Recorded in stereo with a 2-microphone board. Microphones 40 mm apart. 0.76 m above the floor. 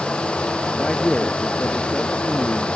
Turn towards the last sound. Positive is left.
turn(degrees=20)  # may be behind; listen again after turning